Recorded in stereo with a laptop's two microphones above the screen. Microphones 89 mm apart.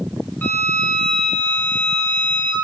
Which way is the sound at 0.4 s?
20° left (ahead or behind).